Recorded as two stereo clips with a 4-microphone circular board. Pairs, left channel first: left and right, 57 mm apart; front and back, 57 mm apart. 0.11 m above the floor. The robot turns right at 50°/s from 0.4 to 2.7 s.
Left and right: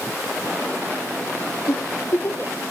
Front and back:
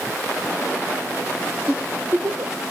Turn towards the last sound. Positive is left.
turn(degrees=155)